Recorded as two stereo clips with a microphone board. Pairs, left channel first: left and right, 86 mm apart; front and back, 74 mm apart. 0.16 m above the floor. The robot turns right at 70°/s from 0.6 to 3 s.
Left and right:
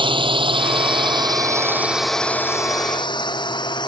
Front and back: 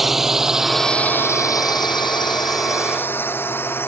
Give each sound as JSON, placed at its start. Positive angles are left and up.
{"t": 0.0, "sound": "a drone", "azimuth_deg": -95}